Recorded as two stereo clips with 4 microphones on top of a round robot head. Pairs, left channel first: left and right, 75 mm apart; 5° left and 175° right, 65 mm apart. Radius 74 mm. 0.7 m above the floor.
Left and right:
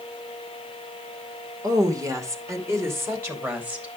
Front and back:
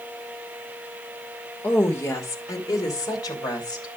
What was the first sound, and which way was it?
A woman speaking, 55° right.